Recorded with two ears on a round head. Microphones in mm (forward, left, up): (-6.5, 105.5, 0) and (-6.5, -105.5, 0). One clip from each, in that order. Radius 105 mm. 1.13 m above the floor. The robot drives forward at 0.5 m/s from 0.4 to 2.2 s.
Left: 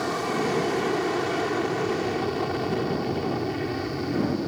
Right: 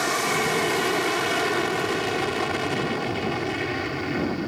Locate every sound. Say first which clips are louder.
0.0 s an aircraft: right 3 dB; 60° right (ahead or behind); by 4.5 s 65° right (ahead or behind)